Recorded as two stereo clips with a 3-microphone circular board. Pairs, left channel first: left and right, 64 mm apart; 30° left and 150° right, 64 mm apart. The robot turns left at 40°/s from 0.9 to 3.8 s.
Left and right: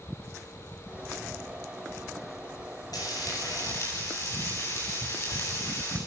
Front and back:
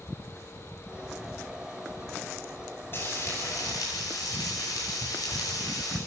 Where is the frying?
85° left, 10 m; by 6.0 s 50° left, 10 m.